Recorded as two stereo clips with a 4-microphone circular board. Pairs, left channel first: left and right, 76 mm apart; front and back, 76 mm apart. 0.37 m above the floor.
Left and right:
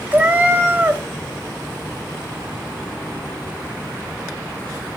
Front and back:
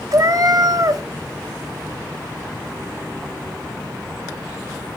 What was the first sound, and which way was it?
A cat meowing, 155° right.